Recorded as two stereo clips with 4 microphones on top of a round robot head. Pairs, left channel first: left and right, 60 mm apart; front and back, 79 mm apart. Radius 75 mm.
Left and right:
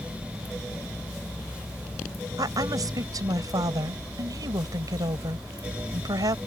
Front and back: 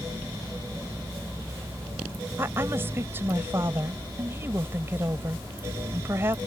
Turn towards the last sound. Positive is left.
turn(degrees=-115)